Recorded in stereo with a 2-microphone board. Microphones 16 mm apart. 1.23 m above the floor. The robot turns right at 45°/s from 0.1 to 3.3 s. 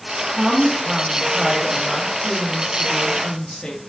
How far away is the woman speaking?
About 1.8 m.